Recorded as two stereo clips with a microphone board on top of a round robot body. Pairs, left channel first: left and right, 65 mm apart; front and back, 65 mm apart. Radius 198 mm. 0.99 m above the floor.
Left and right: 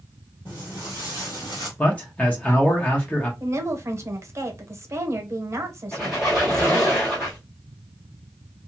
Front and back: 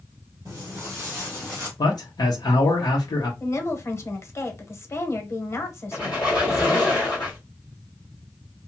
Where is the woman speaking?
45° right, 1.2 m.